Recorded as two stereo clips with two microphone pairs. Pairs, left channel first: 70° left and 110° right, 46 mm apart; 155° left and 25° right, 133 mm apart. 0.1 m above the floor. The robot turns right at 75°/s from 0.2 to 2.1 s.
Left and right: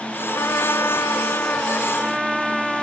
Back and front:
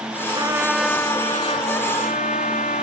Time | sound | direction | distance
0.3 | a trumpet | 30° left | ?